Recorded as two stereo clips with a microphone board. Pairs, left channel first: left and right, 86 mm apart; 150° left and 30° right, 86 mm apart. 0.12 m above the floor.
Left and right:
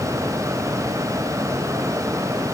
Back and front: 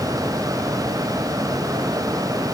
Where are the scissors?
I don't hear scissors.